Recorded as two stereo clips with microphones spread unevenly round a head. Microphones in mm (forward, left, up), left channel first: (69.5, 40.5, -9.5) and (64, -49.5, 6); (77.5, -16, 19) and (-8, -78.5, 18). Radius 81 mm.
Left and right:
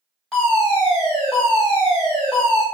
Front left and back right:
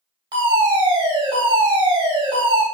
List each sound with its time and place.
0.3 s a fire alarm: 170° left, 3.5 m